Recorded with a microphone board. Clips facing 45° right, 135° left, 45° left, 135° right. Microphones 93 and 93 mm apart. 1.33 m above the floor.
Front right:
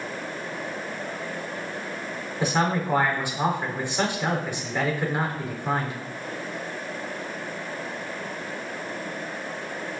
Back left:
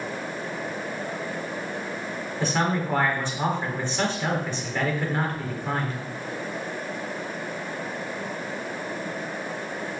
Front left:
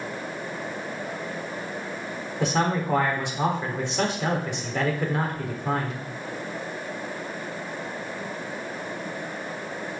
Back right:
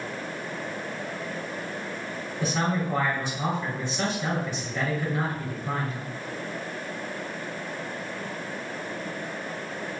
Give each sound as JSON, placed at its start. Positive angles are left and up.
{"t": 2.4, "sound": "a man speaking", "azimuth_deg": 30, "distance_m": 4.0}